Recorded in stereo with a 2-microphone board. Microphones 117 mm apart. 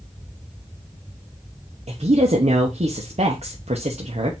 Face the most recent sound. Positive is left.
turn(degrees=-70)  # may be behind; listen again after turning